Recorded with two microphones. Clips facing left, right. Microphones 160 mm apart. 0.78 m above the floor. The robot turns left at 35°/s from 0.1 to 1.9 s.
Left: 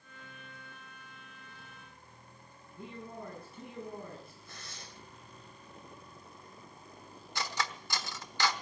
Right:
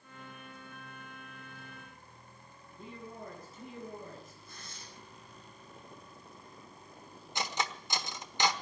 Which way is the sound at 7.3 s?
20° right (ahead or behind).